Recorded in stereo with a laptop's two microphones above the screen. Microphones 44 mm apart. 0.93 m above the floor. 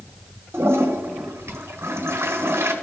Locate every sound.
0.5 s a toilet flushing: 65° right (ahead or behind), 1.3 m